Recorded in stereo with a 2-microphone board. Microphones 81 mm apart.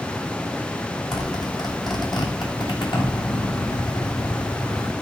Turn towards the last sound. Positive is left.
turn(degrees=70)  # may be behind; listen again after turning